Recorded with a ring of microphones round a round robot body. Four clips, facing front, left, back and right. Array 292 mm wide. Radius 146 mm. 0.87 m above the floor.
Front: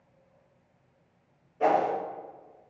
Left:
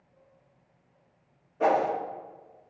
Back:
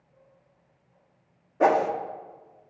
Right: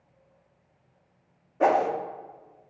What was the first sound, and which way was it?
A whoosh, 155° right.